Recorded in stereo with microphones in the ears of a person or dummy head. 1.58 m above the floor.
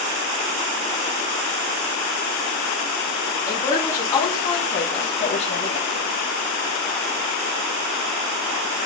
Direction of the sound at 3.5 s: 10° left (ahead or behind).